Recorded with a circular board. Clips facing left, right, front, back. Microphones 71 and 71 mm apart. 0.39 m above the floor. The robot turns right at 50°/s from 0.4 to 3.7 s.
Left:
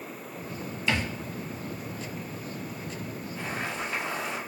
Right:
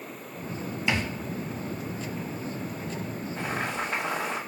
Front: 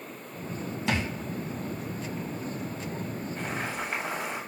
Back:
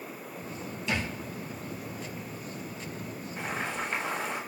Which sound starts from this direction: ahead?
A thud, at 0.9 s.